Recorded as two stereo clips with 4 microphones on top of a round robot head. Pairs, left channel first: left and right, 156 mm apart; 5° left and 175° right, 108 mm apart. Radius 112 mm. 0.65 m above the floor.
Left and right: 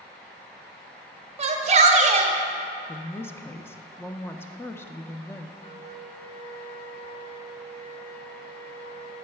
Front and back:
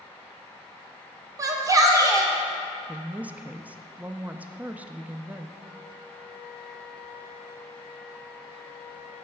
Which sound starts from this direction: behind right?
A shout, at 1.4 s.